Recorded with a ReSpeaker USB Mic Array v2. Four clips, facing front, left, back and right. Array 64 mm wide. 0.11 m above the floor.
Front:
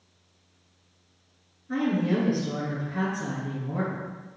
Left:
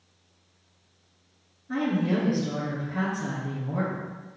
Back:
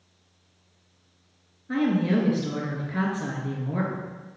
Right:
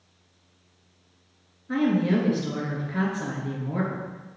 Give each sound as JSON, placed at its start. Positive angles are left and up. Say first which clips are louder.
{"t": 1.7, "sound": "a woman speaking", "louder": "right 3 dB, back 2 dB", "azimuth_deg": -145, "distance_m": 1.4}